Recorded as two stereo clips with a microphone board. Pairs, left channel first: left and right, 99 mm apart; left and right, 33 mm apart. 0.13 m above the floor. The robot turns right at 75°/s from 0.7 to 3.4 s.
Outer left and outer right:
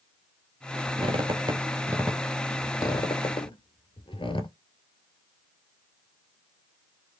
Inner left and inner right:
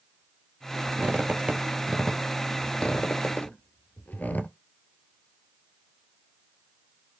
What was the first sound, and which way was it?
A squeak, 60° right (ahead or behind).